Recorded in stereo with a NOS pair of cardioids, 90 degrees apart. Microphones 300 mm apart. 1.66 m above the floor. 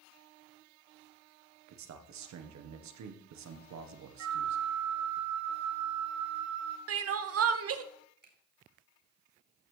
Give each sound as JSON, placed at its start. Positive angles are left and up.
{"t": 1.7, "sound": "a man speaking", "azimuth_deg": -60, "distance_m": 1.5}
{"t": 4.2, "sound": "a flute", "azimuth_deg": -70, "distance_m": 1.2}
{"t": 6.9, "sound": "crying", "azimuth_deg": -50, "distance_m": 0.9}
{"t": 8.2, "sound": "a finger snap", "azimuth_deg": -35, "distance_m": 4.5}